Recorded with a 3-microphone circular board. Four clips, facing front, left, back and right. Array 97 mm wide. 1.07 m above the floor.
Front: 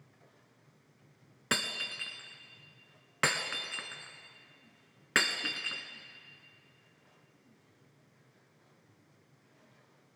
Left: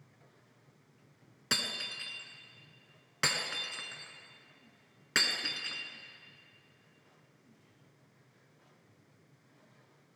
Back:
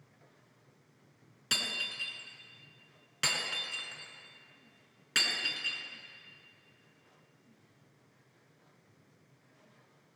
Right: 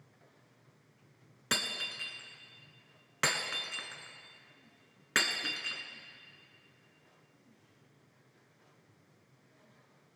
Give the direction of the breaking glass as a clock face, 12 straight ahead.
12 o'clock.